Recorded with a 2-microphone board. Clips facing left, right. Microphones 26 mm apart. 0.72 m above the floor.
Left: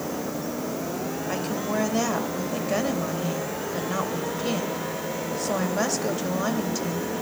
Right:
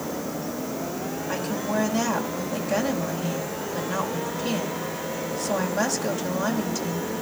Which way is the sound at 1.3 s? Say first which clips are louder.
Right 1 dB; 5° left (ahead or behind).